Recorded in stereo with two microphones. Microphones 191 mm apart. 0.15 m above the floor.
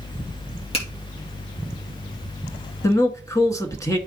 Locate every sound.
0.7 s a finger snap: 30° left (ahead or behind), 3 m
2.8 s a man speaking: 15° left (ahead or behind), 1.4 m